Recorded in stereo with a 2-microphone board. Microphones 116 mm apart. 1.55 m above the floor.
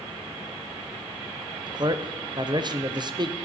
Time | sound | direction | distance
1.7 | a man speaking | 40° right (ahead or behind) | 0.5 m